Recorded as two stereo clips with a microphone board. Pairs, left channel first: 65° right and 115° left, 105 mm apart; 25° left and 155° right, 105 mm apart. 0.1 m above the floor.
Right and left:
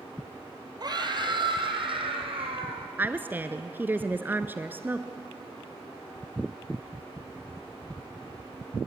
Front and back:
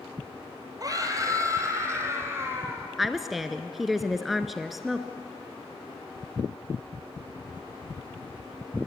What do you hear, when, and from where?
0.8 s a scream: 155° left, 3.5 m; by 2.9 s 135° left, 6 m
3.0 s a woman speaking: 120° left, 1.1 m